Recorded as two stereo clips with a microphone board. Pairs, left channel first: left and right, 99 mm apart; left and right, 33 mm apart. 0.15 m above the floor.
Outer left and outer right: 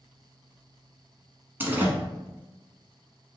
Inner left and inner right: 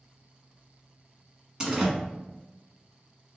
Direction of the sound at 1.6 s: 20° right (ahead or behind).